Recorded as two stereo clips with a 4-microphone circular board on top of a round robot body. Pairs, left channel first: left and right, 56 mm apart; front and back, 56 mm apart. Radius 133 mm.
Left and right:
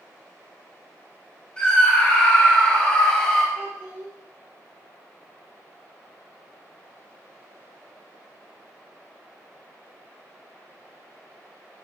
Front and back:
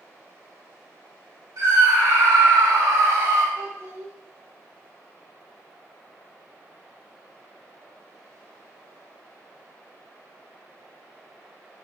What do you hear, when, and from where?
1.6 s a scream: 160° left, 4 m; by 3.5 s 165° left, 3 m
3.5 s a child speaking: 150° right, 2.5 m